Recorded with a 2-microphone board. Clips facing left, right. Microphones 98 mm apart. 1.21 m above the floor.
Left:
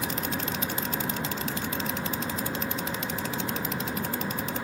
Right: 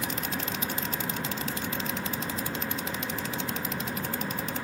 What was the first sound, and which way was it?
Only background noise.